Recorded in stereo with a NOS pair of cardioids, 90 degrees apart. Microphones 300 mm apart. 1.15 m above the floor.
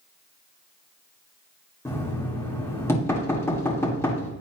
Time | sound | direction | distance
1.9 | knocking | 10° left | 2 m